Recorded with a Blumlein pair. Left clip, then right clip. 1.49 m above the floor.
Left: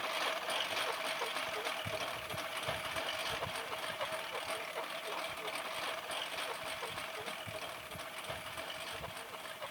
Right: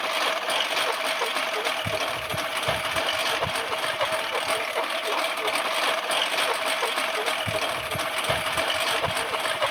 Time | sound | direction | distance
0.0 | a lawn mower | 60° right | ?